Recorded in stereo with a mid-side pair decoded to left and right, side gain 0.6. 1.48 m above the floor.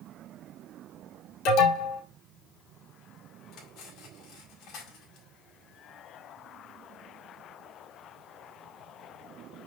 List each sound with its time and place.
1.4 s an alarm: 70° left, 4.5 m
3.5 s cutlery clinking: 70° left, 4.5 m